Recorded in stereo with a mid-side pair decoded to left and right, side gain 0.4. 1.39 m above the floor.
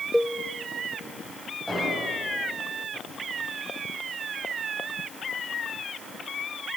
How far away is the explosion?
About 9.5 m.